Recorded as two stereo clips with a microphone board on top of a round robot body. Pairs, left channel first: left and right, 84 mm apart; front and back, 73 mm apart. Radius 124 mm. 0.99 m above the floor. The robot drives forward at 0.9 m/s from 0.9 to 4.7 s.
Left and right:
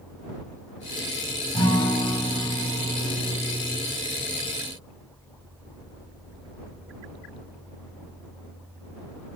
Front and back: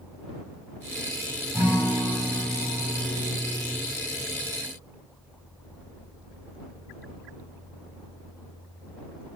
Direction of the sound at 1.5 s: 110° left.